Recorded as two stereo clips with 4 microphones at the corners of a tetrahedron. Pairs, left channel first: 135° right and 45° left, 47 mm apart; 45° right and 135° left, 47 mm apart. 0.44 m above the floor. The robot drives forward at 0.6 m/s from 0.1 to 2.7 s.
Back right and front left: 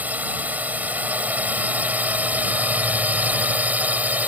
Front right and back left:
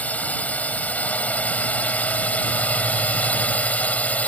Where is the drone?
Straight ahead.